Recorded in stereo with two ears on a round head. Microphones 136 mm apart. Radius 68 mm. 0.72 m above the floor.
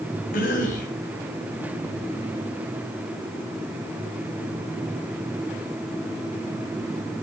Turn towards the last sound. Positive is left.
turn(degrees=60)  # may be behind; listen again after turning